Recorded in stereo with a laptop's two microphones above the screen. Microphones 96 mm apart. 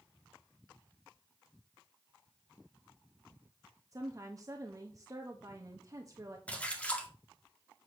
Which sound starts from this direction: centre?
A splash, at 6.5 s.